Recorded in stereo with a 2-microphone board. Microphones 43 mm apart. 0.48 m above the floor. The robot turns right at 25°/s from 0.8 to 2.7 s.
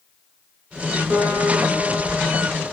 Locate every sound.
1.1 s a guitar: 130° right, 3 m; by 2.7 s 90° right, 3 m